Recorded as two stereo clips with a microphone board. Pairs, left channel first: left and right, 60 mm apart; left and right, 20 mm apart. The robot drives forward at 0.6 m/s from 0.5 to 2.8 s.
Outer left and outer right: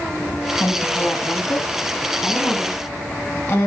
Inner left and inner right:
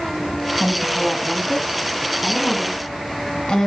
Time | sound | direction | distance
0.6 | a woman speaking | 40° left (ahead or behind) | 1.7 m